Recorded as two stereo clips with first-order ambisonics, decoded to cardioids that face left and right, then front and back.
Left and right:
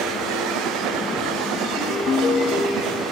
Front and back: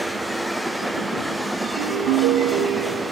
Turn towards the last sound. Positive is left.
turn(degrees=155)